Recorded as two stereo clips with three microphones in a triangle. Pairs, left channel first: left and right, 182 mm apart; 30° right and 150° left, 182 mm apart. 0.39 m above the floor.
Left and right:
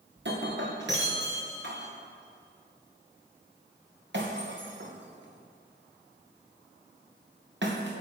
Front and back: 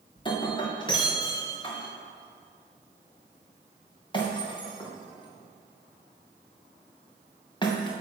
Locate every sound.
0.2 s breaking glass: 95° right, 2.5 m